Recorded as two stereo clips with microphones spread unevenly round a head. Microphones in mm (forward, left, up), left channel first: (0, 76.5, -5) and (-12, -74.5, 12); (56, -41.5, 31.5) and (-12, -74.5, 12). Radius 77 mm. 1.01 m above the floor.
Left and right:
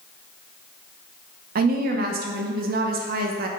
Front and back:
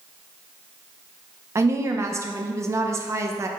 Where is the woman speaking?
120° right, 0.5 m.